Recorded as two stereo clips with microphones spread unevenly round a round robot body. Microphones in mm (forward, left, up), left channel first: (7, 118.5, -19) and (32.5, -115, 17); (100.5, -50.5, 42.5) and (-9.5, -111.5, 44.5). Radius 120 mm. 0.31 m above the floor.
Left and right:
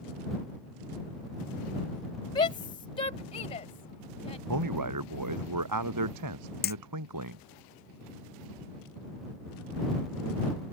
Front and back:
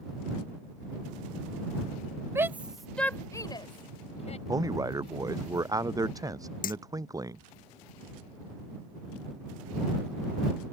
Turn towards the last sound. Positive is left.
turn(degrees=45)